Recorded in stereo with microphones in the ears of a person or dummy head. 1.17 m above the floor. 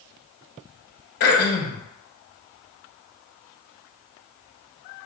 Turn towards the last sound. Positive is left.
turn(degrees=50)  # may be behind; listen again after turning